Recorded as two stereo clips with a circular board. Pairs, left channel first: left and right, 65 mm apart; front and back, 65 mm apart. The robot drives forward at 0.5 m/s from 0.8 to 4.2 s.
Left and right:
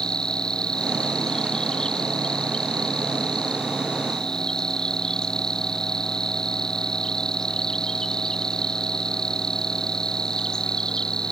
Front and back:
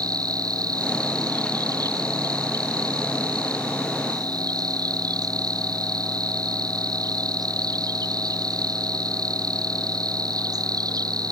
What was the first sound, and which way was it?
An insect, 170° left.